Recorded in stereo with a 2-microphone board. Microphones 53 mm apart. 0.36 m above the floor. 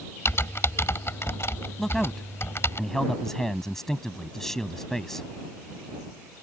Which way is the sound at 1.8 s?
10° left (ahead or behind).